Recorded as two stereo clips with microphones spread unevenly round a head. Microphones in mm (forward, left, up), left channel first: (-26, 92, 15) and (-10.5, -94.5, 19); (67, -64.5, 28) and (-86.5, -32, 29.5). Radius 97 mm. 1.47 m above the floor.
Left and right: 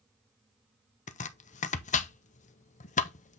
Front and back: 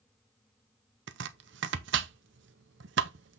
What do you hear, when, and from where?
1.1 s chopping: 150° left, 0.7 m